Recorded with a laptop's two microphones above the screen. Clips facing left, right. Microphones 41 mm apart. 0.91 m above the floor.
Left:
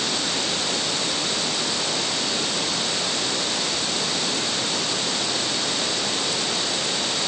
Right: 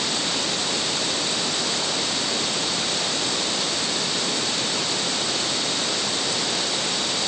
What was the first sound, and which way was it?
Only background noise.